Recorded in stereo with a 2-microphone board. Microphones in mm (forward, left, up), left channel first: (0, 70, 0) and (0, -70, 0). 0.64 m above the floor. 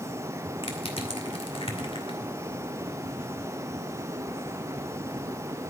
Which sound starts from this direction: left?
Crushing, at 0.6 s.